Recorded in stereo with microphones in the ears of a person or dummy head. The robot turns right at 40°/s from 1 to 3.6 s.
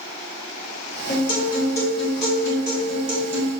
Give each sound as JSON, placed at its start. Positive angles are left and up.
{"t": 1.1, "sound": "a guitar", "azimuth_deg": 140, "distance_m": 1.2}